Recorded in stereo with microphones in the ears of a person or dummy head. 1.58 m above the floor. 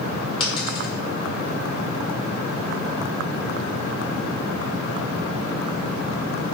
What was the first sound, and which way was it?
A dropped coin, 25° left (ahead or behind).